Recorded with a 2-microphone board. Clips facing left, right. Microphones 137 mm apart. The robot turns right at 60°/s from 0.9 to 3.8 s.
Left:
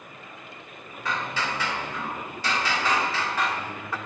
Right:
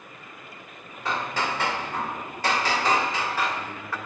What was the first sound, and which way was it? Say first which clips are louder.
Hammering: right 2 dB; 145° right.